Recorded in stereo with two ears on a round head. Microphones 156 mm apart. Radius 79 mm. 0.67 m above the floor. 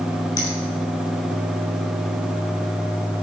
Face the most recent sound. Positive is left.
turn(degrees=25)  # may be behind; listen again after turning